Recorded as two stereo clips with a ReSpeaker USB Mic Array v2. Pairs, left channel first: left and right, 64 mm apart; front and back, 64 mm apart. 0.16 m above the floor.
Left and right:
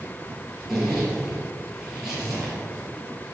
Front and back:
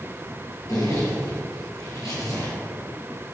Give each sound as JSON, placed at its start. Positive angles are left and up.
{"t": 0.7, "sound": "a zipper", "azimuth_deg": -5, "distance_m": 4.0}